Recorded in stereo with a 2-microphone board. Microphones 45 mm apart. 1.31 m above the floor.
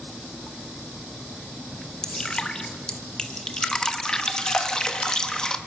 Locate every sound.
2.0 s dripping: 15° left (ahead or behind), 1.2 m